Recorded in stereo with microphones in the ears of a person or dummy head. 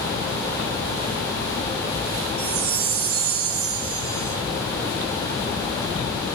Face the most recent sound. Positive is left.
turn(degrees=-70)  # may be behind; listen again after turning